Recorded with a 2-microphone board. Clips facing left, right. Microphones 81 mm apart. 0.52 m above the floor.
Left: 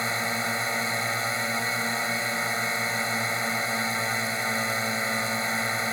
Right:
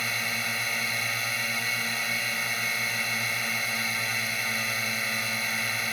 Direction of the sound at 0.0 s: 30° left (ahead or behind).